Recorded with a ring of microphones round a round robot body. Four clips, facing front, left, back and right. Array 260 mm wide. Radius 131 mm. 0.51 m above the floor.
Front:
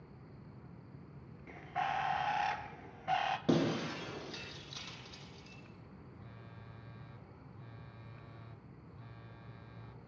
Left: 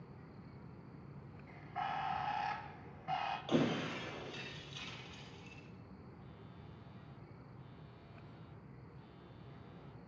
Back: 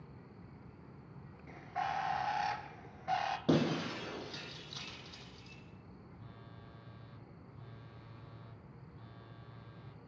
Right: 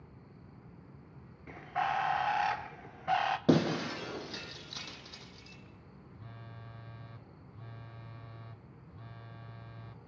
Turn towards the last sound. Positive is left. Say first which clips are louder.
# right 4 dB, even
turn(degrees=-85)